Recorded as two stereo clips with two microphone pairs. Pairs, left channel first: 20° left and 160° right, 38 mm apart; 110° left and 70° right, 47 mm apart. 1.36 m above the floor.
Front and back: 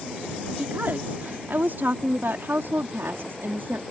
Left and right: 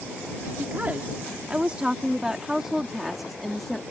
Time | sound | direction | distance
0.5 | a woman speaking | 125° right | ?